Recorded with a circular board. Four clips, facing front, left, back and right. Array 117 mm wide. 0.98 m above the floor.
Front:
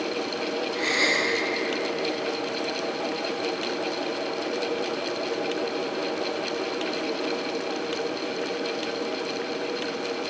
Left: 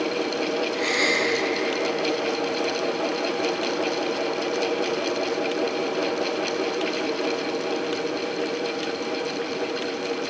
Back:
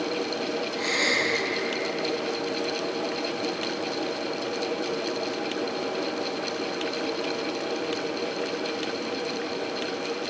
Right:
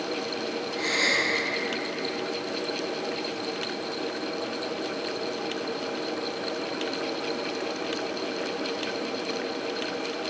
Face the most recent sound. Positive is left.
turn(degrees=35)